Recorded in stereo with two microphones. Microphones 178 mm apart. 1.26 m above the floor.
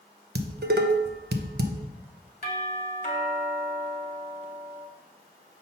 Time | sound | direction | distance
0.3 | dishes clattering | 65° right (ahead or behind) | 0.6 m
2.4 | a doorbell | 50° left (ahead or behind) | 1.4 m